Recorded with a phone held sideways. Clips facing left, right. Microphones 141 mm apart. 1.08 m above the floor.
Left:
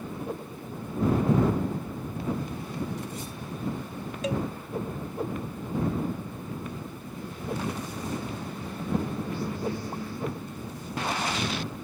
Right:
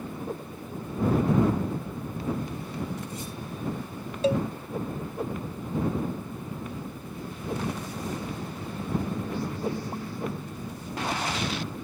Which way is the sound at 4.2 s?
30° right (ahead or behind).